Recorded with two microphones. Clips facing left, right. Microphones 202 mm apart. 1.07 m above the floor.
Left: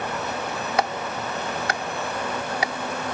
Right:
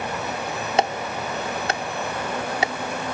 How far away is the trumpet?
No trumpet in this recording.